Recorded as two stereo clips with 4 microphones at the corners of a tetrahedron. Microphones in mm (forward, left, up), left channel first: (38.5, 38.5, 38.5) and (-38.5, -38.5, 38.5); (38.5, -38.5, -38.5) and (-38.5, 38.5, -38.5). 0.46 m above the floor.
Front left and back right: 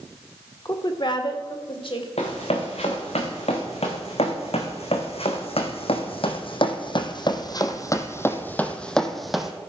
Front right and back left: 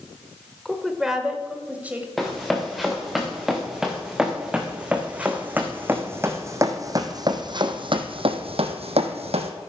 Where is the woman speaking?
40° left, 1.4 m; by 2.1 s 65° left, 2.5 m.